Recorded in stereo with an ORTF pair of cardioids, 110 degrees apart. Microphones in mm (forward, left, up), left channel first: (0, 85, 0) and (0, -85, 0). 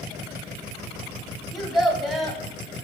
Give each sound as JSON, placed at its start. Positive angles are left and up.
{"t": 1.5, "sound": "a child speaking", "azimuth_deg": 0, "distance_m": 0.6}